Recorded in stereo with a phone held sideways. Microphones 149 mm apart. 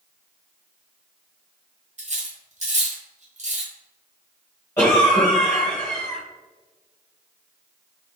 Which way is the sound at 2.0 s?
50° right (ahead or behind).